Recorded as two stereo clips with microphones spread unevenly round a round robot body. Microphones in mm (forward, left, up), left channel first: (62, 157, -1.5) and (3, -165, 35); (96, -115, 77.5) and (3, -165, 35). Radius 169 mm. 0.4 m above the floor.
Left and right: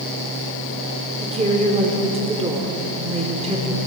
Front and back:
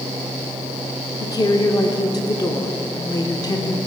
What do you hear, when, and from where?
1.2 s a woman speaking: 35° right, 1.0 m